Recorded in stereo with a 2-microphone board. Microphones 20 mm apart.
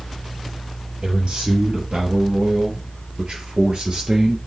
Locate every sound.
1.0 s a man speaking: 70° right (ahead or behind), 4.5 m; by 4.4 s 45° right (ahead or behind), 3.5 m